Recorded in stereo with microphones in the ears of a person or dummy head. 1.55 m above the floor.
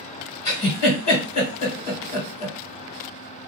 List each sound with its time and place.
0.5 s a giggle: 45° left (ahead or behind), 1.4 m